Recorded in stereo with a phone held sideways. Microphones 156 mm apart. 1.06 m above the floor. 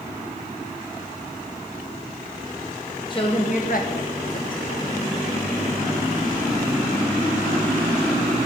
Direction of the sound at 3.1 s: 30° left (ahead or behind).